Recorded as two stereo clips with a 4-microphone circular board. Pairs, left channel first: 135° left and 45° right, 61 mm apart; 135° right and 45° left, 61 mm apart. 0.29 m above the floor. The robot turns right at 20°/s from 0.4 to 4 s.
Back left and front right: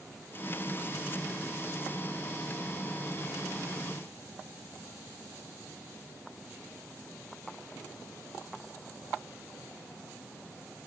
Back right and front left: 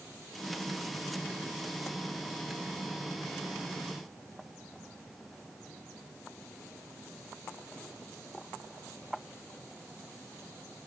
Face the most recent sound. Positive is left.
No sound to turn to.